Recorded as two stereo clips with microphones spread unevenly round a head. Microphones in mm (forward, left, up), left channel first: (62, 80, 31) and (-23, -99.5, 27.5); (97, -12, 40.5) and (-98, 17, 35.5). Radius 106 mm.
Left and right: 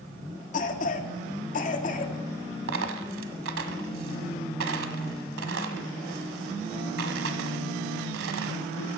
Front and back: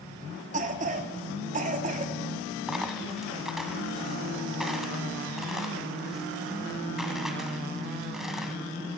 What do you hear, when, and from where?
0.5 s a cough: 120° left, 1.7 m
2.7 s a dropped coin: 100° right, 1.4 m